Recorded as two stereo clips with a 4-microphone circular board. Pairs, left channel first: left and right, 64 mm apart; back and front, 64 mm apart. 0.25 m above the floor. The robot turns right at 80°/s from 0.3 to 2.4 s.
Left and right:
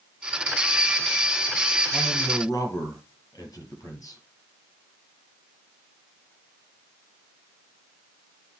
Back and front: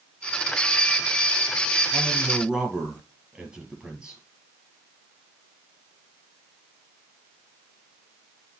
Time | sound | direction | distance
1.9 | a man speaking | 35° left | 6 m